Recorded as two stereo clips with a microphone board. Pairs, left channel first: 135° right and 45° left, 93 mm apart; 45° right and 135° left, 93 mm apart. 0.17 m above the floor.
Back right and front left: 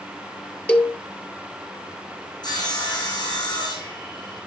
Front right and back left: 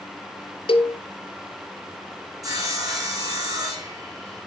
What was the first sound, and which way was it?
A cowbell, 60° right.